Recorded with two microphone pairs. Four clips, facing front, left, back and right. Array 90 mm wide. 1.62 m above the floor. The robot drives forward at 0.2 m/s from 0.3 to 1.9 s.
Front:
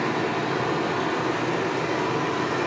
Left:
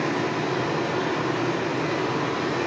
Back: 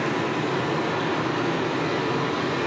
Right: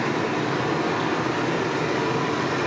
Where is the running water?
70° right, 0.7 m; by 2.7 s 100° right, 0.7 m.